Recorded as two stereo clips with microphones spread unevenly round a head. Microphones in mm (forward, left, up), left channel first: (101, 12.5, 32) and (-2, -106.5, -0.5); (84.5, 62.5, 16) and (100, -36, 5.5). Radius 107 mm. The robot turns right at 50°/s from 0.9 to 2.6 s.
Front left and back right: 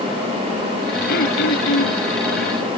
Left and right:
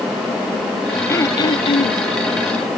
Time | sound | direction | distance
1.1 | throat clearing | 40° left | ?